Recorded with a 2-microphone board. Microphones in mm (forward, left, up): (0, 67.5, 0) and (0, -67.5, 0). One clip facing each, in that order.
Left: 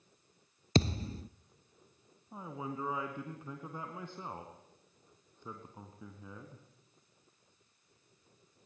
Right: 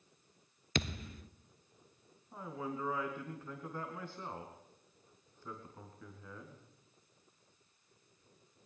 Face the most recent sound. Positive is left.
turn(degrees=20)  # may be behind; listen again after turning